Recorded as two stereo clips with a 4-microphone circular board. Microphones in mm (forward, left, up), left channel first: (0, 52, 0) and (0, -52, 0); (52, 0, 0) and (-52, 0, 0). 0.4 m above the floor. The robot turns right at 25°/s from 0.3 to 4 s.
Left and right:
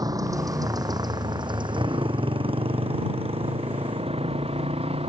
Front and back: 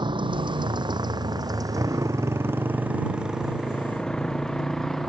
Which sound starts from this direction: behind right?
A motorcycle, at 0.0 s.